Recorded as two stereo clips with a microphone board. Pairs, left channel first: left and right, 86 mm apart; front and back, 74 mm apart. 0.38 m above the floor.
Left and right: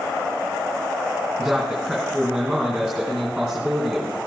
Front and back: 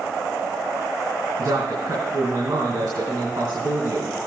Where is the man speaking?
175° right, 3 m.